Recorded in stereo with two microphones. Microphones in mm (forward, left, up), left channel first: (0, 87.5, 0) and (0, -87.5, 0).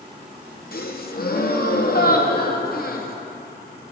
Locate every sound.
0.7 s a gasp: 60° left (ahead or behind), 0.7 m